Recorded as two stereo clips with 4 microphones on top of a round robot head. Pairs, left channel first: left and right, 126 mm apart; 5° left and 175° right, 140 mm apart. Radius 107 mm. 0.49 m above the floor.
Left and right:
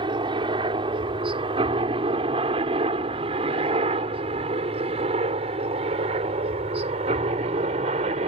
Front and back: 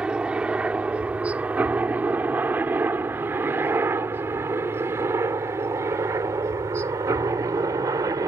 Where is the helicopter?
95° right; by 8.3 s 110° right.